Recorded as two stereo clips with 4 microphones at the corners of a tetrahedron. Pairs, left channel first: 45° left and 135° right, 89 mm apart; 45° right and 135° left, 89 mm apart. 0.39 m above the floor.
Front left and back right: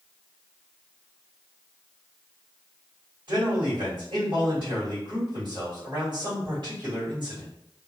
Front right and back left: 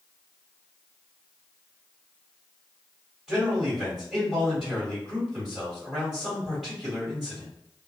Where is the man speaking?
150° right, 1.8 m.